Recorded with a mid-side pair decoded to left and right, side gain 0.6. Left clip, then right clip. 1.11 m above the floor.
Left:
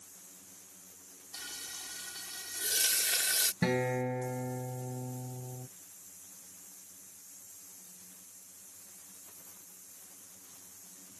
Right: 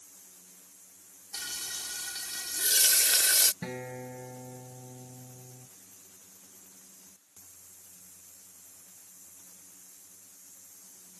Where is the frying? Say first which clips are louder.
Right 6 dB; 40° right.